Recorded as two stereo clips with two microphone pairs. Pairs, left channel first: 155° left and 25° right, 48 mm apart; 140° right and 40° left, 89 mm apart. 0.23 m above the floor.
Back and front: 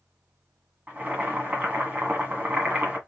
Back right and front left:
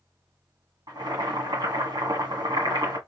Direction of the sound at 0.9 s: 25° left.